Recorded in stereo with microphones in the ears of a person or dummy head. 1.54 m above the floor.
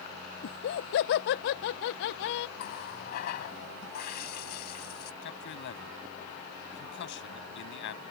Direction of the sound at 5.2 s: 65° left (ahead or behind).